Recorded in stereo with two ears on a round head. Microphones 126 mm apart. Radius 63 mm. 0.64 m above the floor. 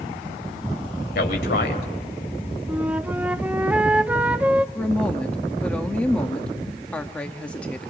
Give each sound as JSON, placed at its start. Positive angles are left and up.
{"t": 1.1, "sound": "a man speaking", "side_deg": 75, "distance_m": 3.0}
{"t": 2.7, "sound": "a flute", "side_deg": -10, "distance_m": 0.6}
{"t": 4.8, "sound": "a woman speaking", "side_deg": 10, "distance_m": 1.1}